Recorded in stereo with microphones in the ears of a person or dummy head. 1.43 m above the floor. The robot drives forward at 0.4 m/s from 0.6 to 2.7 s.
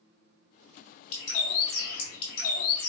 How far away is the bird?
About 1.9 m.